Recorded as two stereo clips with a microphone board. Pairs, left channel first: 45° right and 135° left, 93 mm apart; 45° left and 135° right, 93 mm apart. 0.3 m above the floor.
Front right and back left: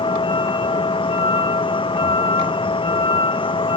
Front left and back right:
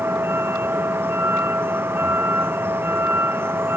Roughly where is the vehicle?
Right.